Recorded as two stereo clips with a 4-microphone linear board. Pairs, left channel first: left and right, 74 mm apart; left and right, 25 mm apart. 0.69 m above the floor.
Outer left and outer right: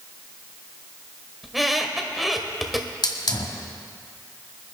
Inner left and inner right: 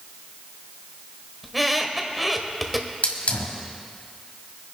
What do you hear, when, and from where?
1.4 s a squeak: centre (ahead or behind), 1.1 m
3.0 s a hiss: 70° left (ahead or behind), 1.5 m